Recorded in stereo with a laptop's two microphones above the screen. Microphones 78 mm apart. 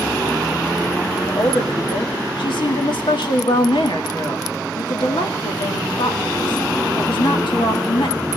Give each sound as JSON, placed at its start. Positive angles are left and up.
{"t": 1.3, "sound": "a woman speaking", "side_deg": 80, "distance_m": 1.8}